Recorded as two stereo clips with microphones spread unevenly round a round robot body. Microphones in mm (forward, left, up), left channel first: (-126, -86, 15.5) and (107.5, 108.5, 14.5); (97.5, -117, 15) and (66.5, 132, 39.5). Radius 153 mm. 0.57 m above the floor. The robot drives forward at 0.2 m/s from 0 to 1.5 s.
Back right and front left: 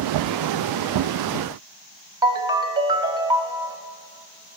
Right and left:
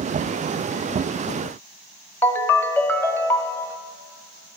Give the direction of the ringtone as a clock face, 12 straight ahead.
1 o'clock.